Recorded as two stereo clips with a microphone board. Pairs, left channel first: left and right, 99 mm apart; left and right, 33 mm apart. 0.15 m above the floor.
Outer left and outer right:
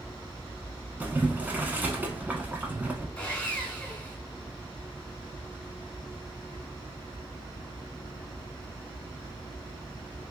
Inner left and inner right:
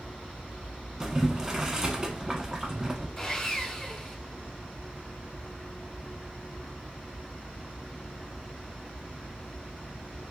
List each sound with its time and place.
1.0 s boiling: 15° right (ahead or behind), 0.8 m
3.2 s sawing: 10° left (ahead or behind), 1.3 m